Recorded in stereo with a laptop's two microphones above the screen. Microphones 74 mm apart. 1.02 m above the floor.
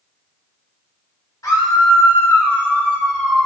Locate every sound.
1.4 s a scream: 55° left (ahead or behind), 2 m; by 3.5 s 5° left (ahead or behind), 1.5 m